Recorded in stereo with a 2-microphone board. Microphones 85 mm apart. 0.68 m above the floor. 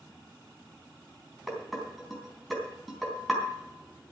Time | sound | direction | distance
1.5 | dishes clattering | centre (ahead or behind) | 3.5 m